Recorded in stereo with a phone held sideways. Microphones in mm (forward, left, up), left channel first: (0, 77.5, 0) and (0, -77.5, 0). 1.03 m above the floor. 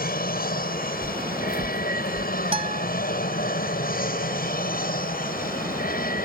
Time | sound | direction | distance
0.0 | an aircraft | 70° left (ahead or behind) | ?
1.0 | footsteps | 30° right (ahead or behind) | ?
2.5 | a guitar | 40° right (ahead or behind) | ?